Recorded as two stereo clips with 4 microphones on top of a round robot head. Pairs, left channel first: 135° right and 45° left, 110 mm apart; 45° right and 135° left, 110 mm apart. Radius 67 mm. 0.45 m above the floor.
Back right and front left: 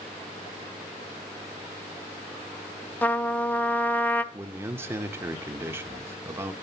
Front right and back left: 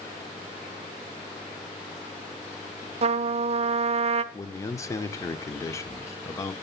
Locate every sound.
3.0 s a trumpet: 150° left, 0.6 m
4.3 s a man speaking: 10° right, 0.9 m